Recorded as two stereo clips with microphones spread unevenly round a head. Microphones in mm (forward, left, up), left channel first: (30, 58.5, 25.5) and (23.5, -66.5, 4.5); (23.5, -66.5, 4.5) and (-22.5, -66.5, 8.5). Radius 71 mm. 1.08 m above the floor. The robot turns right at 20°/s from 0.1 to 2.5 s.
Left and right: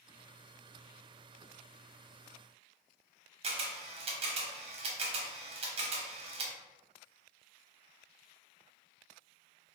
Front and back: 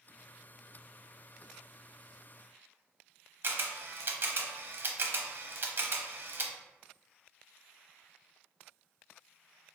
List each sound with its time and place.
3.4 s a camera shutter: 140° right, 0.7 m